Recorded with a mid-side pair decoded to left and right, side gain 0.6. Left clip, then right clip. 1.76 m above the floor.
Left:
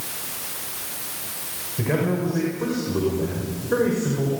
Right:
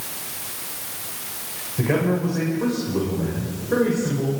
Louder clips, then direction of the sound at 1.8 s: Right 2 dB; 10° right.